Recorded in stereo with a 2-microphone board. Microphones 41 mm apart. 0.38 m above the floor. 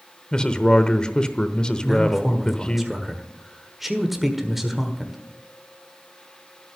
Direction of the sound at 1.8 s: 5° right (ahead or behind).